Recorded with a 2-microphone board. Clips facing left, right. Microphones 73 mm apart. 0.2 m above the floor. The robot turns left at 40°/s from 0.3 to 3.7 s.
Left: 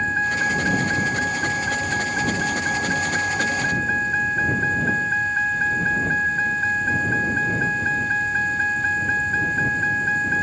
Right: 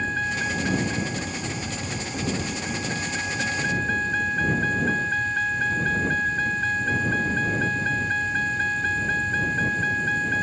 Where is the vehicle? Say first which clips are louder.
Left 5 dB; 155° left; by 10.4 s 15° left.